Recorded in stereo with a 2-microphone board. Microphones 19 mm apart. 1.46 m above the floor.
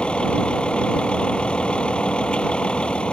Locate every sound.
0.0 s a vehicle: 80° left